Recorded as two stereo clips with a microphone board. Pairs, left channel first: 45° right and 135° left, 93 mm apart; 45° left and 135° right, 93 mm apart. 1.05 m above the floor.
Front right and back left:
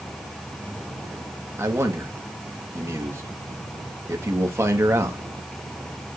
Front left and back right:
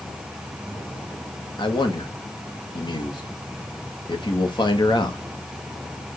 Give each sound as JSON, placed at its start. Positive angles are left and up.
{"t": 1.6, "sound": "a man speaking", "azimuth_deg": 75, "distance_m": 1.8}